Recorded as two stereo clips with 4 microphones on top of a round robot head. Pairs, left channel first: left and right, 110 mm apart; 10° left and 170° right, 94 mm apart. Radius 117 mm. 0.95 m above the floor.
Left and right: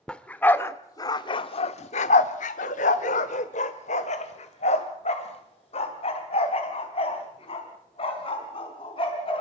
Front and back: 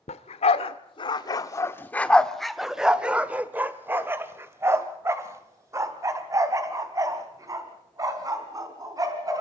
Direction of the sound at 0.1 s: 10° left.